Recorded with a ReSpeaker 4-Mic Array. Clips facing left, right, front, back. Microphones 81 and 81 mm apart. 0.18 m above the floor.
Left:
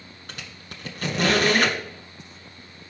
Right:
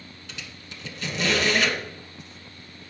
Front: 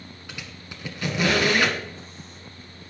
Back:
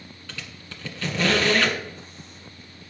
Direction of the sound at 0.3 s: 70° left.